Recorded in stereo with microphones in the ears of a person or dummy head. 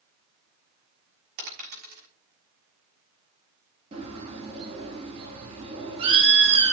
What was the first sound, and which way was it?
A dropped coin, 55° right (ahead or behind).